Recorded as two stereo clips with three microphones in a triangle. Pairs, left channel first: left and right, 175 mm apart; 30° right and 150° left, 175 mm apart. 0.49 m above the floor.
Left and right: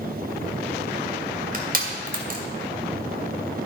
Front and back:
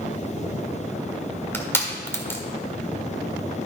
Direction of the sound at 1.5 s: 105° right.